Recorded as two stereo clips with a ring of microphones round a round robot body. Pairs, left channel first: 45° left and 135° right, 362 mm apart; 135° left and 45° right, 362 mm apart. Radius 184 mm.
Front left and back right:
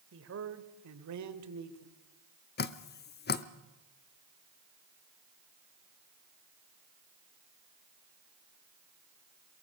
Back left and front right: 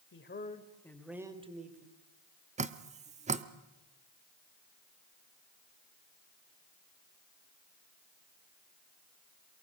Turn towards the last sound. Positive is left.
turn(degrees=10)